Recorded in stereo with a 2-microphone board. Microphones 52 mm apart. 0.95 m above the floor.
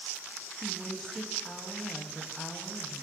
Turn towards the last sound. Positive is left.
turn(degrees=5)  # may be behind; listen again after turning